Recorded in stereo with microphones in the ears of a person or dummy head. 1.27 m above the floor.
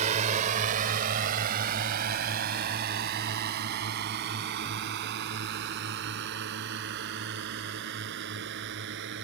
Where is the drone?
40° right (ahead or behind); by 9.3 s 60° right (ahead or behind).